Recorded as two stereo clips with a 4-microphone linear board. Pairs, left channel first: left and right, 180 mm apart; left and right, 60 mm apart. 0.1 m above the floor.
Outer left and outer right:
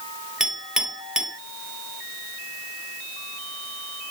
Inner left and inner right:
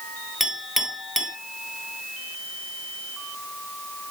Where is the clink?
5° right (ahead or behind), 1.4 m.